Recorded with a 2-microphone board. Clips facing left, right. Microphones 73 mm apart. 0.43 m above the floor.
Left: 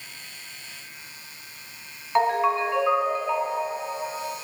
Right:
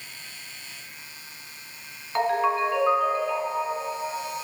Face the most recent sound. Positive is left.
turn(degrees=20)  # may be behind; listen again after turning